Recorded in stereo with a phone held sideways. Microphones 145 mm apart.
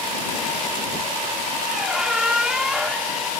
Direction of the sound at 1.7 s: 5° right (ahead or behind).